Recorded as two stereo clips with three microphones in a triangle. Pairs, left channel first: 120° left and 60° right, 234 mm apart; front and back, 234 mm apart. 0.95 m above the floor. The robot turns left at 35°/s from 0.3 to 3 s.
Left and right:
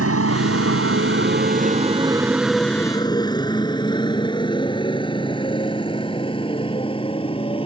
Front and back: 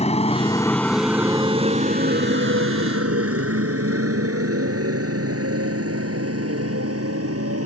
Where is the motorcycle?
60° right; by 7.7 s 175° right.